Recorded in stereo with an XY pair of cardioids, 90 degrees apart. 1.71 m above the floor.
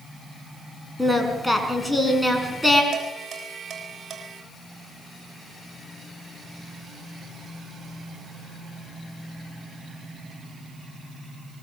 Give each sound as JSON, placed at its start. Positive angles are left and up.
{"t": 1.0, "sound": "singing", "azimuth_deg": 10, "distance_m": 5.0}
{"t": 2.9, "sound": "dishes clattering", "azimuth_deg": -50, "distance_m": 7.0}